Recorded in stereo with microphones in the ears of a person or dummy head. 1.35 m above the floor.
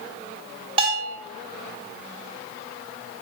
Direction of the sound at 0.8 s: 35° right (ahead or behind).